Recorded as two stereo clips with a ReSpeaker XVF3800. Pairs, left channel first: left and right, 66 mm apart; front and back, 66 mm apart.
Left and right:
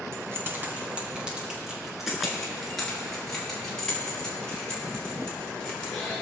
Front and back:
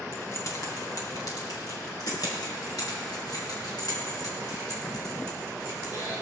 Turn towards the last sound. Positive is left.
turn(degrees=15)